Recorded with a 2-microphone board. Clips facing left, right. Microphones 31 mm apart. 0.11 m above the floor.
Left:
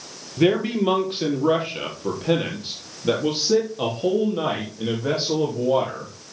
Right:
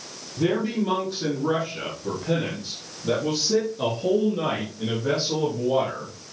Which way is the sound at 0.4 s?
55° left (ahead or behind).